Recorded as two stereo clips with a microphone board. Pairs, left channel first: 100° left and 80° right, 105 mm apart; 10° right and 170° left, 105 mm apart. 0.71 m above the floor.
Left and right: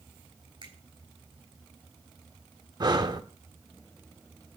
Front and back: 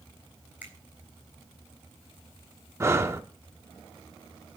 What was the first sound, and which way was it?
A finger snap, 115° right.